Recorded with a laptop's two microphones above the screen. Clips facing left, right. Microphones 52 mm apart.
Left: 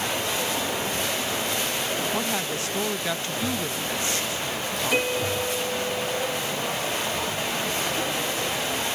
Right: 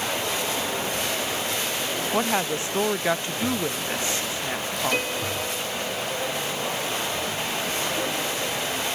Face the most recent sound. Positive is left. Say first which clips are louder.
# left 6 dB
turn(degrees=5)  # may be behind; listen again after turning